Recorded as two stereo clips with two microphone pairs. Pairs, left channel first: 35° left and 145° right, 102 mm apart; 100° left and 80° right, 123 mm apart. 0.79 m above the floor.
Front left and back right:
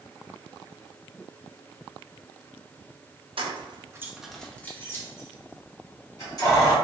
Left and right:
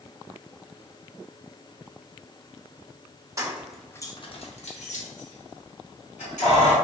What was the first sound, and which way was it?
Keys jangling, 140° right.